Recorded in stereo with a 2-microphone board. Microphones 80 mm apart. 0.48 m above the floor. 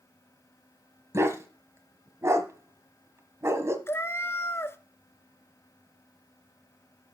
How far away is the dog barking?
About 1.1 m.